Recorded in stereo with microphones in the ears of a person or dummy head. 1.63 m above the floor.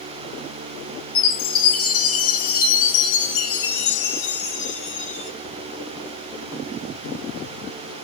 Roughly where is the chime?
Left.